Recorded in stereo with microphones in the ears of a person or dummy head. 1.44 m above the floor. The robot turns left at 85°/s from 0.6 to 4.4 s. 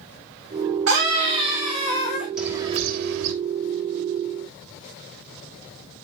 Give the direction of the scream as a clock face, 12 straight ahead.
4 o'clock.